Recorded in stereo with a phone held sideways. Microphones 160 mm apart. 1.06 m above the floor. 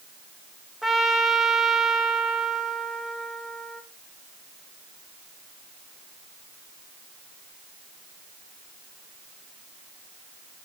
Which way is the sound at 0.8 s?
Centre (ahead or behind).